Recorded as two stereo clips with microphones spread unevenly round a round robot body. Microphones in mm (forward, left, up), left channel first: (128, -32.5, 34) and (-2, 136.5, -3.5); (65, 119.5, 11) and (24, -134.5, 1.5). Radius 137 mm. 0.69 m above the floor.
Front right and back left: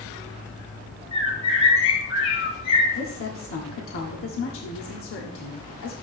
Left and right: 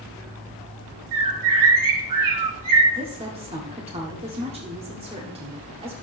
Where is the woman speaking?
35° right, 1.5 m.